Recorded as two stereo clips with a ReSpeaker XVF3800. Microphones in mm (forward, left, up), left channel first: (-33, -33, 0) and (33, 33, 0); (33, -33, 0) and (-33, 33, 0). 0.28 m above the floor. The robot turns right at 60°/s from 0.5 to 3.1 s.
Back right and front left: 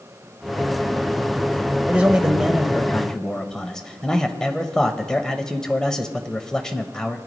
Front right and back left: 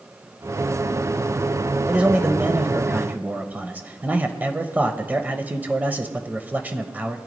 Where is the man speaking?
80° left, 0.9 m; by 7.2 s 155° left, 0.9 m.